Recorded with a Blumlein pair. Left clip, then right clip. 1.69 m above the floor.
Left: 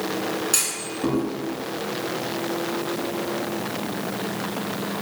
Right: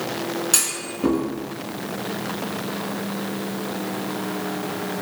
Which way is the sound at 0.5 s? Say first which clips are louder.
Right 2 dB; 20° right.